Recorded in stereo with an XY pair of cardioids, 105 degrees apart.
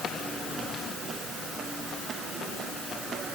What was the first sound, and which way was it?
Only background noise.